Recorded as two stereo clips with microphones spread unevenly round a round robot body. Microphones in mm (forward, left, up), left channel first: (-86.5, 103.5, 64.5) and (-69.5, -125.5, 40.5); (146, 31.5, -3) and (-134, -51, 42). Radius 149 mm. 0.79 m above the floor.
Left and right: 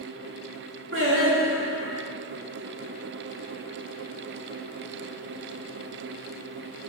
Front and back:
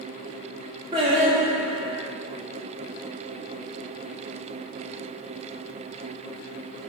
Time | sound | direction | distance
0.9 | singing | 90° right | 1.5 m